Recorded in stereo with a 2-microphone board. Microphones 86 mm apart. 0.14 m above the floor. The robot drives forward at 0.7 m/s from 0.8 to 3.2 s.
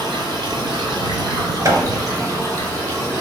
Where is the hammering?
35° right (ahead or behind), 1.0 m.